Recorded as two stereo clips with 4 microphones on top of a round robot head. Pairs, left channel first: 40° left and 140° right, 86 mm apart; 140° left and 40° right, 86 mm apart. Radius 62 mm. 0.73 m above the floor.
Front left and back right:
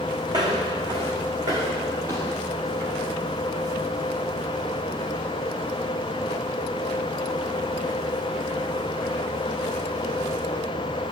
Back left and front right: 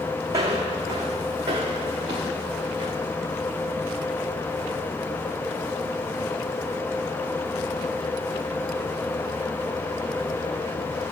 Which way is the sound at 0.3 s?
100° right.